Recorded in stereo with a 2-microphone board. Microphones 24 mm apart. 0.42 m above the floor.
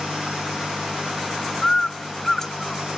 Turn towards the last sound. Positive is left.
turn(degrees=20)  # may be behind; listen again after turning